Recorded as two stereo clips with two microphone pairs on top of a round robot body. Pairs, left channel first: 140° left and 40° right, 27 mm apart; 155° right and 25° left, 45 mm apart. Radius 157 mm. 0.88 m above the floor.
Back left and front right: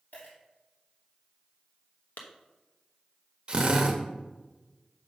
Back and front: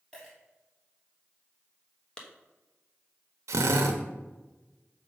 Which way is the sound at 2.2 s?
130° left.